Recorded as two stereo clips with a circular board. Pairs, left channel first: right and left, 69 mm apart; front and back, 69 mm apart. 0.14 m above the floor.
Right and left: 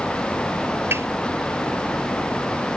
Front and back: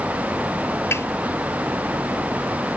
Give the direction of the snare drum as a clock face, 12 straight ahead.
11 o'clock.